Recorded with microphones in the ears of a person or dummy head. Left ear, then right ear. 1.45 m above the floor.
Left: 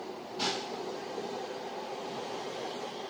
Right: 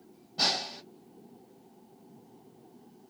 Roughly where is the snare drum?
Right.